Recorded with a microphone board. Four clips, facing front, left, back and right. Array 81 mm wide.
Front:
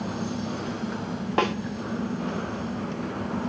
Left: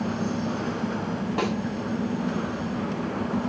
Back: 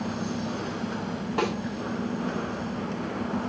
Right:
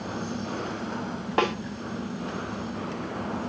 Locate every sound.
1.4 s a snare drum: 45° right, 1.2 m